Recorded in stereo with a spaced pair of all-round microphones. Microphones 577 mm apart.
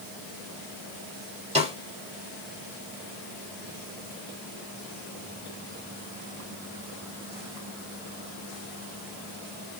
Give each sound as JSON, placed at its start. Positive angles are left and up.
{"t": 1.6, "sound": "a snare drum", "side_deg": -10, "distance_m": 2.5}